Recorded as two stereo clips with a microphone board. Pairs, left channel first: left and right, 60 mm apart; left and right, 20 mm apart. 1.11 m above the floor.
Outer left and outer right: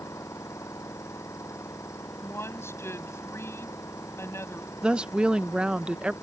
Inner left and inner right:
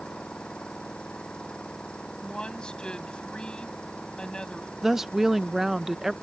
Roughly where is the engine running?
Left.